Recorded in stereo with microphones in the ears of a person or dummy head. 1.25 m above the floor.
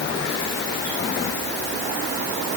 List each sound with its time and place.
Only background noise.